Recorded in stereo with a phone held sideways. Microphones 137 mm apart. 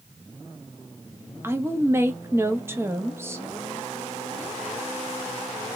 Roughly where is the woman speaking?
Centre.